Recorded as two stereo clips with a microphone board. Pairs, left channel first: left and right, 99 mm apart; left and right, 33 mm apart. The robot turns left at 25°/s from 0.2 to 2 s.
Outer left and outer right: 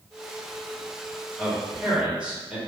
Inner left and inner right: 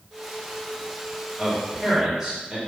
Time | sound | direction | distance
1.4 | a man speaking | 5° left (ahead or behind) | 0.9 m